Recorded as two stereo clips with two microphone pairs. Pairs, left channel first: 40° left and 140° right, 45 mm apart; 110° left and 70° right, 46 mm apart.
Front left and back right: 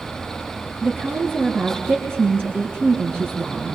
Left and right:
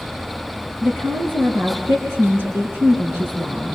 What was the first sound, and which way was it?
A woman speaking, 105° right.